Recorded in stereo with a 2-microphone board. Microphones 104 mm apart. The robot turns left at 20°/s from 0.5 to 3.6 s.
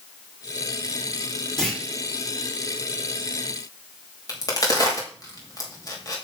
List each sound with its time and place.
1.6 s a clunk: 5° left (ahead or behind), 3.5 m; by 1.8 s 10° left (ahead or behind), 3.5 m
4.3 s a crack: 35° left (ahead or behind), 3 m